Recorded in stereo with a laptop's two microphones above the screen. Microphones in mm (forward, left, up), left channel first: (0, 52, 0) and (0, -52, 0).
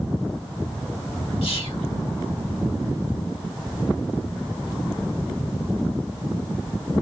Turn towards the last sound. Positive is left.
turn(degrees=65)  # may be behind; listen again after turning